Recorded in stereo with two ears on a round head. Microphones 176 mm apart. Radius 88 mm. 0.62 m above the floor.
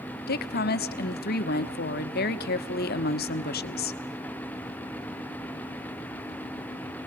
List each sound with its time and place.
0.3 s a woman speaking: 50° left (ahead or behind), 1.1 m